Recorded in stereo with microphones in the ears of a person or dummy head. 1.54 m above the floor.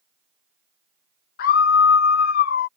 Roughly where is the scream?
Left.